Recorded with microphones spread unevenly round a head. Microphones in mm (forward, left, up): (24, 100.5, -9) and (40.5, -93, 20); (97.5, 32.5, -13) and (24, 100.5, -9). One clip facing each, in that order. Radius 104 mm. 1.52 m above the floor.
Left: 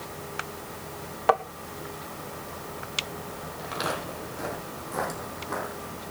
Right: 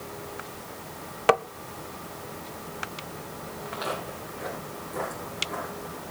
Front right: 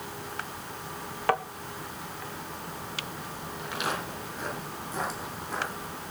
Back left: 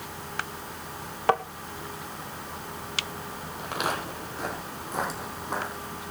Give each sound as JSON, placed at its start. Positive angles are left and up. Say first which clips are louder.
{"t": 1.3, "sound": "tapping", "louder": "right 2 dB, back left 3 dB", "azimuth_deg": -145, "distance_m": 0.5}
{"t": 3.6, "sound": "footsteps", "louder": "left 1 dB, back left 3 dB", "azimuth_deg": 105, "distance_m": 4.5}